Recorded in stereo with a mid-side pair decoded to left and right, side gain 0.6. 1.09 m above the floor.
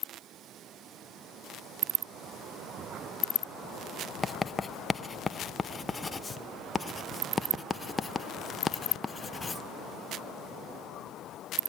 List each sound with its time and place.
4.2 s writing: 20° left, 0.6 m